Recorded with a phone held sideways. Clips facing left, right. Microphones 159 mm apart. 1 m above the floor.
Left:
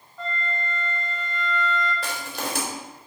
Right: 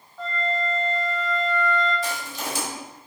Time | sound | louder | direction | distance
0.2 | a flute | right 5 dB | 5° right (ahead or behind) | 2 m
2.0 | crushing | even | 65° left (ahead or behind) | 3 m